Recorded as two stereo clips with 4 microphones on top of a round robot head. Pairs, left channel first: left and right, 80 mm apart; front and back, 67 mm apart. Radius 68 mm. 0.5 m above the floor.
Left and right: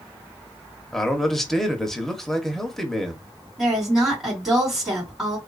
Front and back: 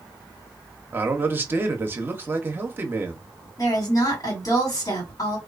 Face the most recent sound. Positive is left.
turn(degrees=-5)